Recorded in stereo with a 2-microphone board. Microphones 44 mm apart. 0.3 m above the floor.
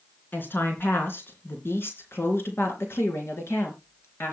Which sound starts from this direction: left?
A woman speaking, at 0.3 s.